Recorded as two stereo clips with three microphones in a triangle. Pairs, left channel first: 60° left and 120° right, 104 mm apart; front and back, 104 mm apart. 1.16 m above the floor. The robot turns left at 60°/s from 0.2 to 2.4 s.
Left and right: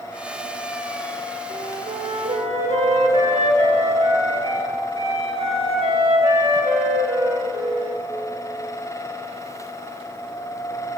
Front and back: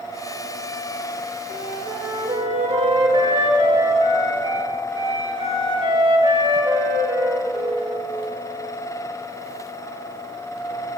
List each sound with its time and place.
1.5 s a flute: 95° right, 2 m; by 8.0 s 145° right, 2 m